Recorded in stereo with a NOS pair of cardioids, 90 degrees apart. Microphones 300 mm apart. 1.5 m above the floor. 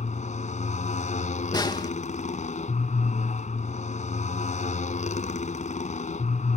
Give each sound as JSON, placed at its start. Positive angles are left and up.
{"t": 0.0, "sound": "a motorcycle", "azimuth_deg": 25}
{"t": 1.5, "sound": "a snare drum", "azimuth_deg": 15}